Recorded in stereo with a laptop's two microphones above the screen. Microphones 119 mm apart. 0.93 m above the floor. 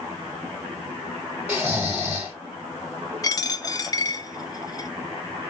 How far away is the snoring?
About 1.9 m.